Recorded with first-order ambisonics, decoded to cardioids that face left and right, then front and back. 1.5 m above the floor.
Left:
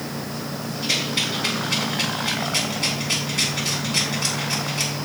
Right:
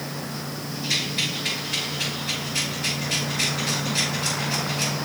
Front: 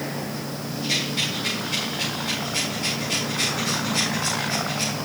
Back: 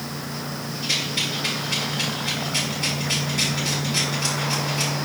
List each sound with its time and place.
0.8 s a rattle: 110° left, 5 m